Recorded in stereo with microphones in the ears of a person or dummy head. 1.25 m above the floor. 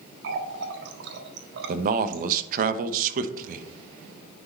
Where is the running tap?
70° right (ahead or behind), 1.4 m.